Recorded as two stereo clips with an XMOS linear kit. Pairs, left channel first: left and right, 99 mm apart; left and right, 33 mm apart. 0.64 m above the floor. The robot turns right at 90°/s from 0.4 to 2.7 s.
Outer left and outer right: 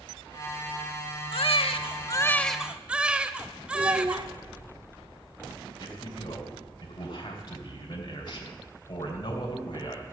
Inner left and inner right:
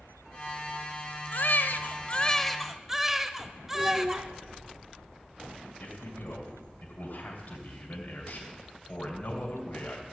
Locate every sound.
1.3 s a baby crying: 65° left, 0.7 m; by 4.3 s 170° right, 0.7 m
3.7 s a child speaking: 45° right (ahead or behind), 0.8 m
5.8 s a man speaking: 50° left (ahead or behind), 3 m